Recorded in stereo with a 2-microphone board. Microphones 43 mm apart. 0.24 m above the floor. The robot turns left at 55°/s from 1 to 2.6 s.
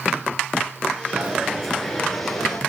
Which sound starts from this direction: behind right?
A dropped coin, at 1.1 s.